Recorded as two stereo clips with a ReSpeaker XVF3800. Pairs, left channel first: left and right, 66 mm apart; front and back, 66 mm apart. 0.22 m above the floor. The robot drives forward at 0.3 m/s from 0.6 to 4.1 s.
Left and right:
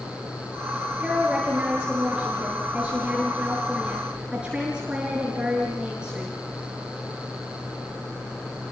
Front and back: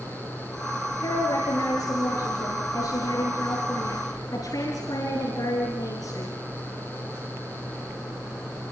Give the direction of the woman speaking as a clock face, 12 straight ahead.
12 o'clock.